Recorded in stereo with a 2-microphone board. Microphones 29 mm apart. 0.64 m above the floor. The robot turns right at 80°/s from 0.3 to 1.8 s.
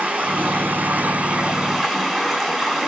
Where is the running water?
120° right, 6 m; by 2.9 s straight ahead, 6 m.